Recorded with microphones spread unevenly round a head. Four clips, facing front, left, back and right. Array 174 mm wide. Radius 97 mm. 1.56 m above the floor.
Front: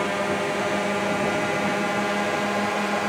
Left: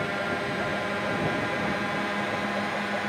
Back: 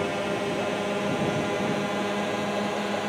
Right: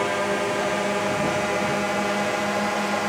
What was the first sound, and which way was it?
A drone, 80° right.